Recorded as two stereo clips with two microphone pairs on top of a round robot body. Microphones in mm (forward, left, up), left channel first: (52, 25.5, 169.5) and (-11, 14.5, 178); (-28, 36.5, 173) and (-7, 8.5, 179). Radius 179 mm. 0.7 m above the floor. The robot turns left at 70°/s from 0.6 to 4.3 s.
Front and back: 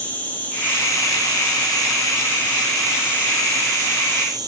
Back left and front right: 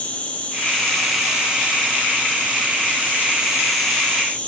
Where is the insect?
75° left, 1.8 m; by 4.5 s 175° left, 1.8 m.